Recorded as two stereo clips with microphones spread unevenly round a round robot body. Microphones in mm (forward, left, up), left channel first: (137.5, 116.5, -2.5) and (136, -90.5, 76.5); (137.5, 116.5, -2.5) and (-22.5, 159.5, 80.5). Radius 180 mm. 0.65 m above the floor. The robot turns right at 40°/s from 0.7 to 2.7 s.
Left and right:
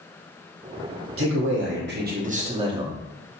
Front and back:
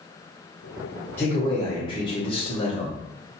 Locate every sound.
1.2 s a man speaking: 70° right, 1.2 m; by 3.3 s 10° right, 1.2 m